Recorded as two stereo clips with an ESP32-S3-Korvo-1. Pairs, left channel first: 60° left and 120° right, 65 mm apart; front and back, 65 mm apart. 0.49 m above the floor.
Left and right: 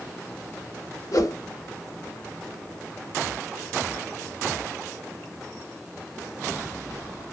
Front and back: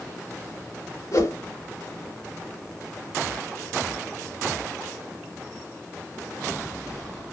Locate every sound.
1.1 s a whoosh: 35° left, 0.6 m